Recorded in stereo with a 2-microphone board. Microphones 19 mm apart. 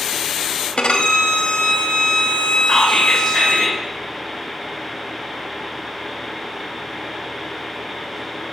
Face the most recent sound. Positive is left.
turn(degrees=25)  # may be behind; listen again after turning